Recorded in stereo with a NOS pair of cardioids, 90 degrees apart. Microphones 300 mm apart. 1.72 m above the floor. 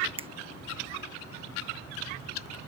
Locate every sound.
0.2 s a finger snap: 20° right